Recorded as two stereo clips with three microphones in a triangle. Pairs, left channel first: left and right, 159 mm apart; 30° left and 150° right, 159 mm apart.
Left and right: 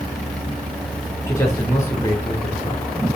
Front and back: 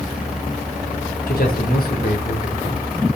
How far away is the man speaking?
About 4 m.